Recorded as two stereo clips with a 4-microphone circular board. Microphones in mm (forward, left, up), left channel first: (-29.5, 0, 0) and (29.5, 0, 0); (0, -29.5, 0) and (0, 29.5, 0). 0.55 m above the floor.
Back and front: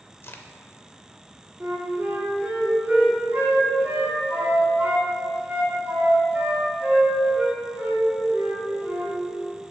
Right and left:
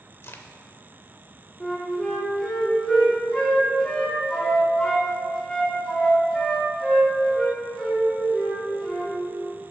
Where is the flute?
25° right, 1.5 m.